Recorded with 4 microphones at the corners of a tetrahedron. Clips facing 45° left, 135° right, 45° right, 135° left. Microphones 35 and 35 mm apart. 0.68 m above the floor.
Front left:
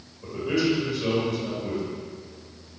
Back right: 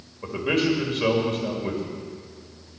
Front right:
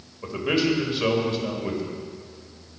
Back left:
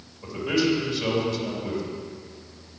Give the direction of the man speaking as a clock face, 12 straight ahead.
3 o'clock.